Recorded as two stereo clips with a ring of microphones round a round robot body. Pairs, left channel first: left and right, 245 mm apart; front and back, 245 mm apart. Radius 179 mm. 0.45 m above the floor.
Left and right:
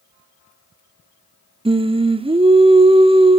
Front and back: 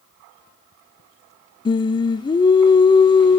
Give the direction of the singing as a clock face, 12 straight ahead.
2 o'clock.